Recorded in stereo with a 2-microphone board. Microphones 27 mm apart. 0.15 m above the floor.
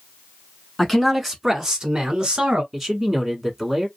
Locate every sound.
0.8 s a man speaking: 5° left (ahead or behind), 1.2 m; by 2.6 s 40° right (ahead or behind), 1.2 m
2.7 s a man speaking: 5° right (ahead or behind), 1.1 m